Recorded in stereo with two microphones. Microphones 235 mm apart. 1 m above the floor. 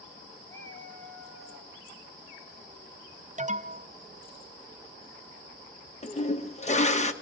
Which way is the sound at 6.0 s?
30° left (ahead or behind).